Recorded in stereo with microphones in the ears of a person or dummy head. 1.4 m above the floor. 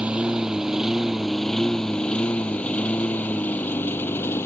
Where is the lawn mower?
5° right (ahead or behind); by 4.5 s 15° left (ahead or behind).